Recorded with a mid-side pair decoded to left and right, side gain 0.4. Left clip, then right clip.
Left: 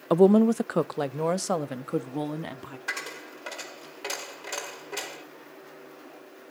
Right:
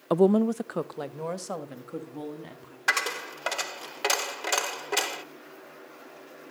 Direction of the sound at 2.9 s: 70° right.